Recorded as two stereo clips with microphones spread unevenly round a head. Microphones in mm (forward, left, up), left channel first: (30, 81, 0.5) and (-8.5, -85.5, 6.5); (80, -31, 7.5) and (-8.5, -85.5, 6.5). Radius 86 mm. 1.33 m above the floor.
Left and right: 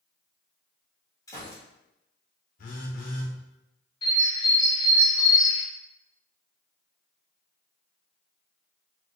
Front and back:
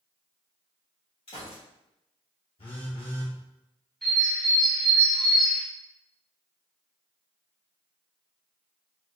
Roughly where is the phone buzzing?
Ahead left.